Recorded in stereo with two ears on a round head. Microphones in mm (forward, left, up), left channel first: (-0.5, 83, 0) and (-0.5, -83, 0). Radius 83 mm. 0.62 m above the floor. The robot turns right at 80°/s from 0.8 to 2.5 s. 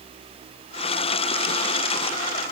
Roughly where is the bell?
No bell in this recording.